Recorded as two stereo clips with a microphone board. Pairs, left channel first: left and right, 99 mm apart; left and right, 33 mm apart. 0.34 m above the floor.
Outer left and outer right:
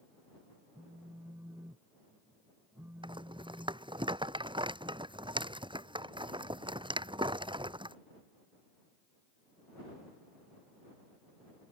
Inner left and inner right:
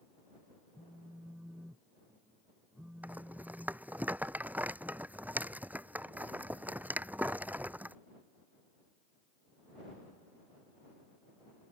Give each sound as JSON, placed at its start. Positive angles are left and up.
{"t": 0.7, "sound": "a phone buzzing", "side_deg": -20}
{"t": 3.0, "sound": "a rattle", "side_deg": -55}